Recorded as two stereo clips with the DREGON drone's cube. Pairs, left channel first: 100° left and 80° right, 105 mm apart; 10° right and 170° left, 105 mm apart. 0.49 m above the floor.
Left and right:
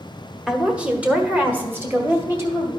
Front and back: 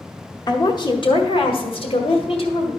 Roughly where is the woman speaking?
Ahead.